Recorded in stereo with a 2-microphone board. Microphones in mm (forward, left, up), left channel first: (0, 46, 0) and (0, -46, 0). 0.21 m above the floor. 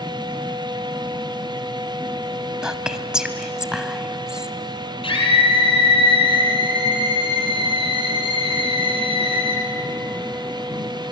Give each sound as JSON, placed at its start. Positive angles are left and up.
{"t": 2.6, "sound": "whispering", "side_deg": -5, "distance_m": 1.0}
{"t": 5.0, "sound": "a scream", "side_deg": 65, "distance_m": 7.5}